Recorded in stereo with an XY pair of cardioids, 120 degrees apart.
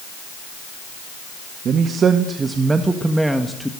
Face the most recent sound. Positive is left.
turn(degrees=5)